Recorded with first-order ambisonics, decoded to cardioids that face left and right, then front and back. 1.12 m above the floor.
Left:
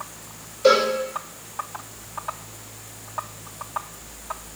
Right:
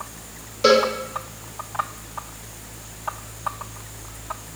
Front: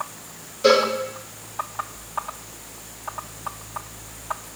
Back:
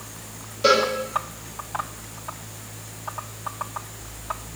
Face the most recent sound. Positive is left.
turn(degrees=-100)